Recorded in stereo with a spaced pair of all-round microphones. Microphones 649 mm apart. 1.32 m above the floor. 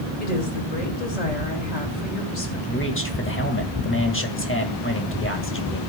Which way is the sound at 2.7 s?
20° left (ahead or behind).